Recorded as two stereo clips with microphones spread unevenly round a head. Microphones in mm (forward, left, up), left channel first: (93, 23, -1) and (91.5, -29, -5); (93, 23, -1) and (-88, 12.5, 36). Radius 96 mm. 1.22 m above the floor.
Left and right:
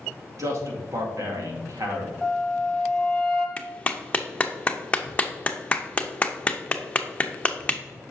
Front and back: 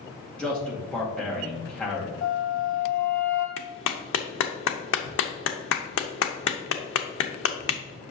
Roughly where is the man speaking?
Right.